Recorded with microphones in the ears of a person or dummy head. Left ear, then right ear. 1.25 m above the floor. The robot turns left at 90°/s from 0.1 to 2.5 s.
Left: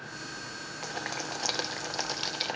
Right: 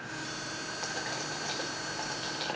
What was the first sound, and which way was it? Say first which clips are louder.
Boiling: left 2 dB; 10° left (ahead or behind).